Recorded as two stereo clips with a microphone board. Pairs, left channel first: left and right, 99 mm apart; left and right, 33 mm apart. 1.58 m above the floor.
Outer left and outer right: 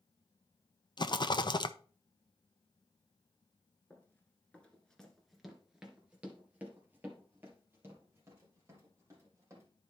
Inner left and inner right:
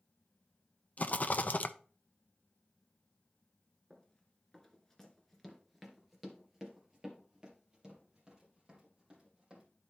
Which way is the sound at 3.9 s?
20° left (ahead or behind).